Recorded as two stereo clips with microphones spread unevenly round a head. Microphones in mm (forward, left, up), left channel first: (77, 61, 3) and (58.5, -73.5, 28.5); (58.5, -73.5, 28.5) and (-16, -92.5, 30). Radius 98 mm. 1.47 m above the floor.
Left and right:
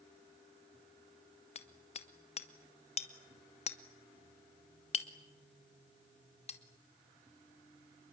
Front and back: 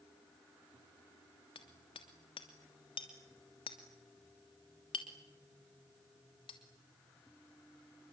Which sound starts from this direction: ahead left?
Hammering, at 1.6 s.